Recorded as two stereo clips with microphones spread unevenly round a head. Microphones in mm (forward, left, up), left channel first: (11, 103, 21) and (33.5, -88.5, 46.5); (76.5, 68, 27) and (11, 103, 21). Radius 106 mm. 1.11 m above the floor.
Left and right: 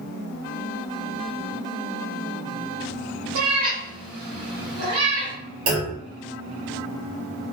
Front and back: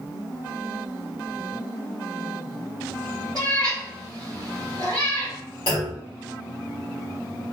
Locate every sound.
3.4 s a cat meowing: 90° right, 0.9 m
5.7 s a clunk: 70° right, 1.3 m